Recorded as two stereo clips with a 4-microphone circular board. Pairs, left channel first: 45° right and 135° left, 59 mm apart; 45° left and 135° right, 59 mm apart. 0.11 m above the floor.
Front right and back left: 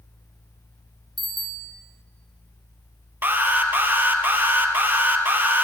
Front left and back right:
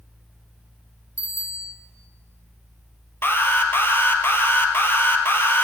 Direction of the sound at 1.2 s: 45° left.